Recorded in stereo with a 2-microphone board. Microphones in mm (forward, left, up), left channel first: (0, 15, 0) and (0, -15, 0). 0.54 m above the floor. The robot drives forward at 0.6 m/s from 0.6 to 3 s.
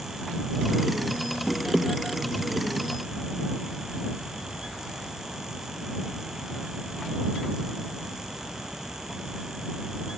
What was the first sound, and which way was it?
Only background noise.